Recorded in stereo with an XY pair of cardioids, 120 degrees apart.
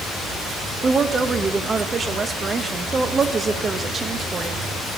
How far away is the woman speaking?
About 0.9 m.